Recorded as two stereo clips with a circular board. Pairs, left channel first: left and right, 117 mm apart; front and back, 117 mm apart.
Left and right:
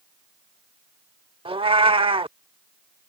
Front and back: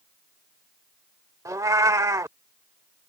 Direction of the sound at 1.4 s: 120° right.